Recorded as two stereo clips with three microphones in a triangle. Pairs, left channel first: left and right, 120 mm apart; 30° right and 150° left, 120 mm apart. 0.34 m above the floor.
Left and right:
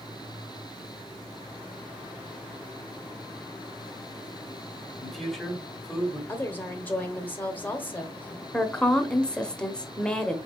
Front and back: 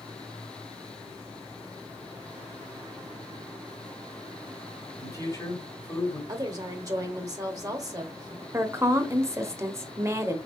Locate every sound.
5.0 s a man speaking: straight ahead, 1.7 m
6.3 s a woman speaking: 145° left, 0.9 m
8.5 s a woman speaking: 160° left, 0.8 m